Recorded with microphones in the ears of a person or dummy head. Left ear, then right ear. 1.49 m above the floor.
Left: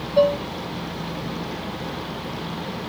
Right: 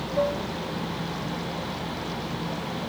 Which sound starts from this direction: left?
Dishes clattering, at 0.2 s.